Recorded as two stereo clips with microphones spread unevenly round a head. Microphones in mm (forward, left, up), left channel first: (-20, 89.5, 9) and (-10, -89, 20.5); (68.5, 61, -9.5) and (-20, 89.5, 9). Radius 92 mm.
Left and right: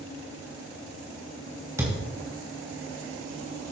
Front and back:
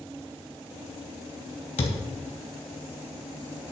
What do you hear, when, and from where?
1.8 s a thud: 15° right, 3 m